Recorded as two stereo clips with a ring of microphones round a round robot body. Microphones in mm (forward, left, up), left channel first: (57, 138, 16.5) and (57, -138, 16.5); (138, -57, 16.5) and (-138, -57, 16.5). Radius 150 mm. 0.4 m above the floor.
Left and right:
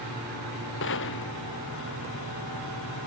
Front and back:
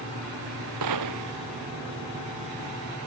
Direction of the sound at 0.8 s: 145° left.